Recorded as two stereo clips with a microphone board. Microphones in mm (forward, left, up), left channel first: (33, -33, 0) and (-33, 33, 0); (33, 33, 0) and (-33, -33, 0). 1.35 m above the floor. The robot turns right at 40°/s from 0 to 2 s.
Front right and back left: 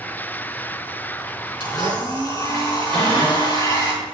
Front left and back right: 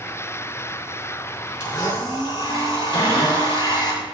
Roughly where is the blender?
Ahead.